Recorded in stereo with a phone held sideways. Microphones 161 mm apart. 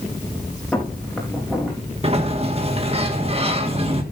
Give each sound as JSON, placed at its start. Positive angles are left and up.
{"t": 0.7, "sound": "footsteps", "side_deg": 5, "distance_m": 5.5}
{"t": 2.0, "sound": "a sliding door", "side_deg": -35, "distance_m": 1.6}